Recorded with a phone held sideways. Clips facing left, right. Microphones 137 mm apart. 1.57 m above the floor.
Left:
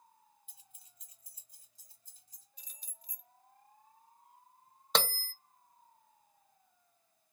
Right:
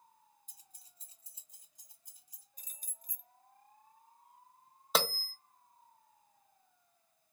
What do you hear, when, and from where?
0.5 s keys jangling: 40° right (ahead or behind), 0.8 m; by 2.5 s 10° right (ahead or behind), 1.6 m
2.6 s keys jangling: 45° right (ahead or behind), 0.7 m
5.0 s a bell: 5° right (ahead or behind), 0.5 m